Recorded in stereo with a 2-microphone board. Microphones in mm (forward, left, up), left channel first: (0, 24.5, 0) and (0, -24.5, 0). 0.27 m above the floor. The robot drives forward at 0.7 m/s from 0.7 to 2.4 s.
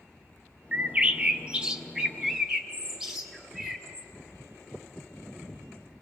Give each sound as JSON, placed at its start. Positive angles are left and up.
{"t": 0.7, "sound": "a bird", "side_deg": -25, "distance_m": 0.6}